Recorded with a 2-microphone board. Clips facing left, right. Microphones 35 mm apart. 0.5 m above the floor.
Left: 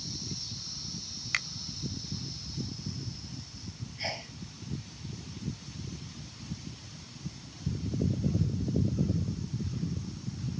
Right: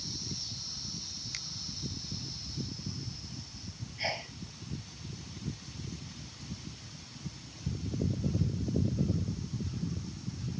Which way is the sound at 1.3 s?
70° left (ahead or behind).